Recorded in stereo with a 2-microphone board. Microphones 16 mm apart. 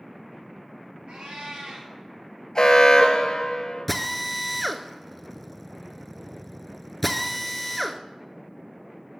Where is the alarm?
45° left (ahead or behind), 1.2 m.